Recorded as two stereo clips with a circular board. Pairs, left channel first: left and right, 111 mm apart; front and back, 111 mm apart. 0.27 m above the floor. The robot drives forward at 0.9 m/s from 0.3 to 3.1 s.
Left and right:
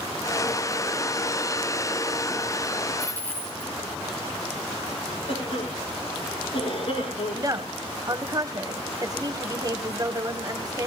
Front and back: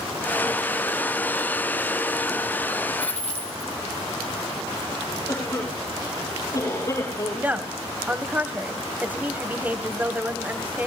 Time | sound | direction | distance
3.0 | a dropped coin | 20° left | 3 m
5.3 | a cough | 60° left | 7.5 m
7.3 | a woman speaking | 115° right | 1.4 m